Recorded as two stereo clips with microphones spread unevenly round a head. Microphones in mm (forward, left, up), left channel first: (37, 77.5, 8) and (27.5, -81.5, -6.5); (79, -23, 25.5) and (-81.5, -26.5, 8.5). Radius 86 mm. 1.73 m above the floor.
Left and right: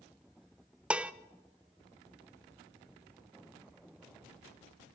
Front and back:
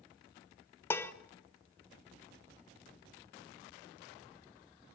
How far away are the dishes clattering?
About 0.7 m.